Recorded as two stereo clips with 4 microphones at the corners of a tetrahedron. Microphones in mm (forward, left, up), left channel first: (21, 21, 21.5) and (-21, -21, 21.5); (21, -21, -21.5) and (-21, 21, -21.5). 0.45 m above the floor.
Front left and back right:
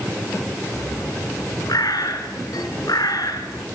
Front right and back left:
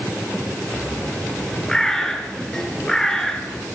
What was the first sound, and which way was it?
A bird, 35° left.